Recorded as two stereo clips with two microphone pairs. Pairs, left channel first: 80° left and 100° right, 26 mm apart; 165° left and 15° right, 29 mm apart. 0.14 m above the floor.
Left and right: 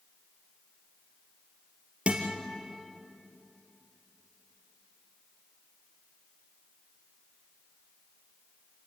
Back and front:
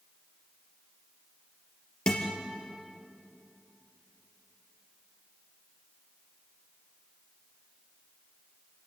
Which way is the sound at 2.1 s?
135° right.